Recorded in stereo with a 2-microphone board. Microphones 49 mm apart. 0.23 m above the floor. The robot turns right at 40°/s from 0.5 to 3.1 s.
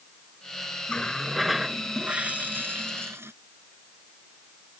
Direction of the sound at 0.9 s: 160° left.